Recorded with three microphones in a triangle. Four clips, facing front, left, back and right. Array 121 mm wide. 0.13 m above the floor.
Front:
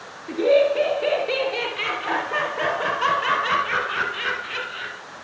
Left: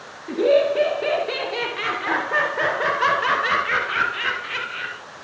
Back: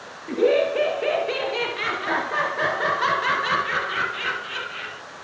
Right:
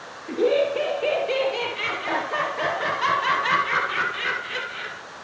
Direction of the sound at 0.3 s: 140° left.